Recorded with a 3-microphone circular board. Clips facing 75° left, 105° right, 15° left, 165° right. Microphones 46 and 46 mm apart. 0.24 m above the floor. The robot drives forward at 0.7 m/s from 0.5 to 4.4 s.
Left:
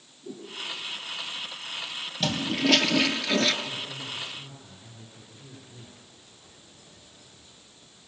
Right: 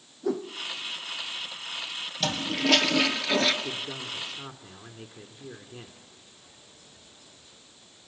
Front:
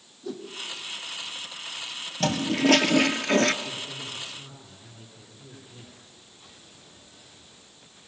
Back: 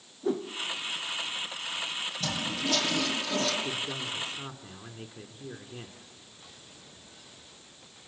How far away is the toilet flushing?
About 2.5 m.